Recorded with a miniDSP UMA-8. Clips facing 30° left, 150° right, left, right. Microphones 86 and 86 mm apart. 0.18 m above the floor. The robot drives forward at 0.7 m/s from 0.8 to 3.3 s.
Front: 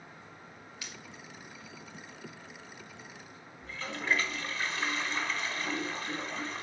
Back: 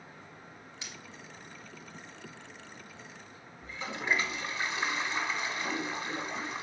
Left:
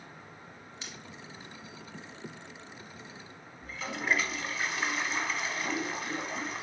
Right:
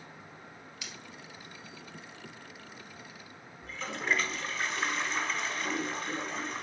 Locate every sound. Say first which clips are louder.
0.8 s scissors: even, left 1 dB; 145° left, 2 m
3.6 s a toilet flushing: even, left 1 dB; 170° left, 0.9 m